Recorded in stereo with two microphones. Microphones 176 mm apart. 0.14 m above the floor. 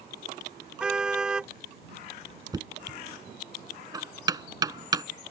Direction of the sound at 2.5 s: 20° right (ahead or behind).